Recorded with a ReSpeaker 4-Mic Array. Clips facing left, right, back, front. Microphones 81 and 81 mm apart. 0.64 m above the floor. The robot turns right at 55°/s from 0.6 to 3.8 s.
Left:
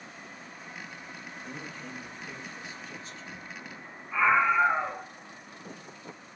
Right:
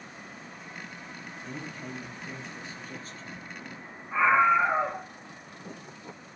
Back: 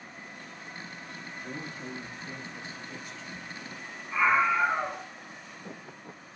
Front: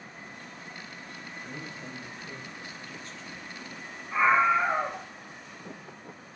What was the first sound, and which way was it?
A man speaking, 170° left.